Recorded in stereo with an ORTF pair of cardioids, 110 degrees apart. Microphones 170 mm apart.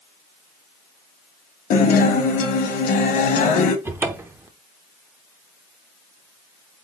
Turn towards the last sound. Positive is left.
turn(degrees=-15)